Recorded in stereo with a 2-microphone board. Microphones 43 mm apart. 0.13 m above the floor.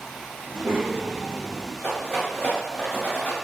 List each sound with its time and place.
0.4 s a child speaking: 40° right (ahead or behind), 2.0 m
1.8 s a rattle: 45° left (ahead or behind), 1.3 m